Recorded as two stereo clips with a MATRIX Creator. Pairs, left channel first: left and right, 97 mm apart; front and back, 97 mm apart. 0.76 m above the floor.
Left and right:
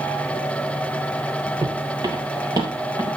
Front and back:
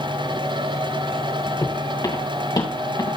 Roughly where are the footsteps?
Ahead right.